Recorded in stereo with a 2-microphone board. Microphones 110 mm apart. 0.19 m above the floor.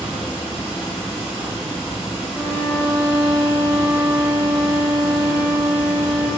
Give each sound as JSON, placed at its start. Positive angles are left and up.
{"t": 0.0, "sound": "running water", "side_deg": -5, "distance_m": 1.6}
{"t": 2.3, "sound": "a violin", "side_deg": 35, "distance_m": 0.6}